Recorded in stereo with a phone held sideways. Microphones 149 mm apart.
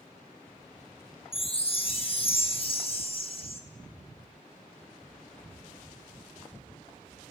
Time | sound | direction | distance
1.3 | a chime | 40° left (ahead or behind) | 0.9 m